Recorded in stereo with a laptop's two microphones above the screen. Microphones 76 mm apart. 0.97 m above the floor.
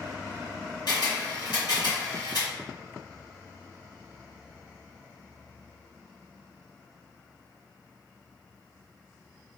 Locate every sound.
0.9 s a camera shutter: 65° left (ahead or behind), 1.8 m